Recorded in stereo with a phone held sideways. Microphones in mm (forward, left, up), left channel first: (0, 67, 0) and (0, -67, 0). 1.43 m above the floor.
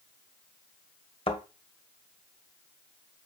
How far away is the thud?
About 1.5 m.